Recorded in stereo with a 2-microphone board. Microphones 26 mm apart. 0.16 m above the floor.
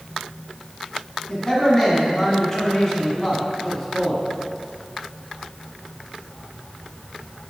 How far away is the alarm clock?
I don't hear an alarm clock.